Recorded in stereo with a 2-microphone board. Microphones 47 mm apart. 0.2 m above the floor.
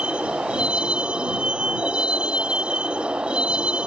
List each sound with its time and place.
0.0 s a vehicle: 25° right (ahead or behind)